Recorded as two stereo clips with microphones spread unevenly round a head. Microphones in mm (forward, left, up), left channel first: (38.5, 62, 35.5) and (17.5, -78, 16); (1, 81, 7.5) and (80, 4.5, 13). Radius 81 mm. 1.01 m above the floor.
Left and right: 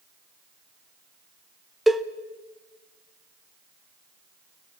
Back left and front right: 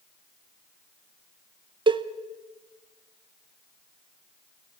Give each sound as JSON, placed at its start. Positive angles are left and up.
{"t": 1.9, "sound": "a cowbell", "azimuth_deg": -15, "distance_m": 0.9}